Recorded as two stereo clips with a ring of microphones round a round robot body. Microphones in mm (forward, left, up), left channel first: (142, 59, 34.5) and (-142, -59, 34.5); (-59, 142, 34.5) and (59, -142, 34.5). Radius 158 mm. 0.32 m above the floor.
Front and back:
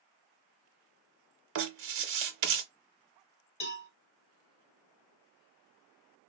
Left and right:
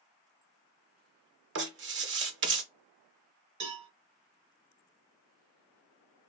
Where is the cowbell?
40° right, 1.9 m.